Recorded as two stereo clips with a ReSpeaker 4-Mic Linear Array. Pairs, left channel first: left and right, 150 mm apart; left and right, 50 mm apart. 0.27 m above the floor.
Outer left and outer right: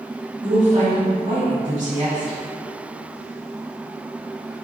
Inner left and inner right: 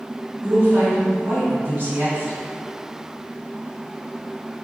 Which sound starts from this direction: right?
A woman speaking, at 0.4 s.